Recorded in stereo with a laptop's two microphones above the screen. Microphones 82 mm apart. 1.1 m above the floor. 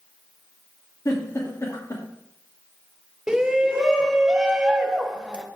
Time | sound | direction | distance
1.1 | a giggle | 40° left (ahead or behind) | 2.5 m
3.3 | a shout | 10° right (ahead or behind) | 0.8 m